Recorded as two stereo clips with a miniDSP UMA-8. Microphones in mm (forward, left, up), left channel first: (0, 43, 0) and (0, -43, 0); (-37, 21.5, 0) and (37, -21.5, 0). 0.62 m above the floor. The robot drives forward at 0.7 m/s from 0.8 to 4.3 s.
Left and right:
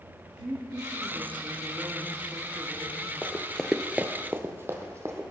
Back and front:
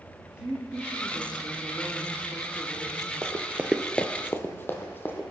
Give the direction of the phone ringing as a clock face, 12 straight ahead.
No phone ringing in this recording.